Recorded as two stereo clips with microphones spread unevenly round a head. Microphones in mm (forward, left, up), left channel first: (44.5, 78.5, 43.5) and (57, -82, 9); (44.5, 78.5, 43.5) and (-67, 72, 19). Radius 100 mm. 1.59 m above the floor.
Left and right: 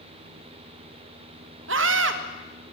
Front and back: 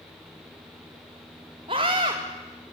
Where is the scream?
110° right, 1.8 m.